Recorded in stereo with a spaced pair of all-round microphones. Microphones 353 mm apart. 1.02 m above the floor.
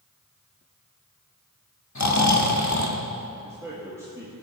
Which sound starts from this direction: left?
Snoring, at 1.9 s.